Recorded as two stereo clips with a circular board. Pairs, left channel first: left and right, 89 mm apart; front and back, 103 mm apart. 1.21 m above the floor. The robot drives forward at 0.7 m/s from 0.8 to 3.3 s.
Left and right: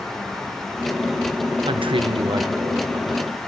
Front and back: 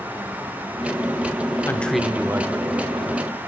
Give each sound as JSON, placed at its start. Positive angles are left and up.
{"t": 1.7, "sound": "a man speaking", "azimuth_deg": -70, "distance_m": 0.6}